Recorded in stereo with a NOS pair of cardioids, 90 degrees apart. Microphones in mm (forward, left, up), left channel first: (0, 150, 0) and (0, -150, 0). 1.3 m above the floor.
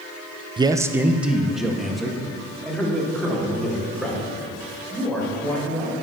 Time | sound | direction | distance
0.6 | a man speaking | 15° right | 0.5 m